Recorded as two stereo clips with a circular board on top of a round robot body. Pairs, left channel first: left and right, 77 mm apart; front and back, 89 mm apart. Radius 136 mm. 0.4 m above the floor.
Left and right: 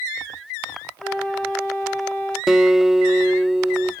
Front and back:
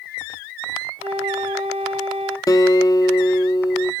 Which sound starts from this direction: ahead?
A guitar, at 2.5 s.